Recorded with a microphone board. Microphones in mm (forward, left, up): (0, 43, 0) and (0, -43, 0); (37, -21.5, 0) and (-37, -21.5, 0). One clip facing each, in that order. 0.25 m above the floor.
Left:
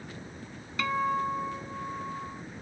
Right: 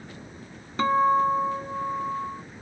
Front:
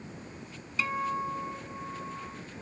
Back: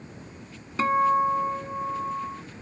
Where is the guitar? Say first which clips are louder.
Right 8 dB, back 10 dB; 140° right.